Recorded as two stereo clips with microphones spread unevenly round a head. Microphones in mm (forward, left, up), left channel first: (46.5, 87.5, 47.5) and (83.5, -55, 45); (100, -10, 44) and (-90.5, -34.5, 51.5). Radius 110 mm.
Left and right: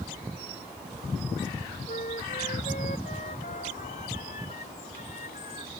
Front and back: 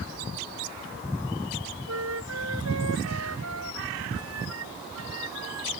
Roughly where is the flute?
Behind.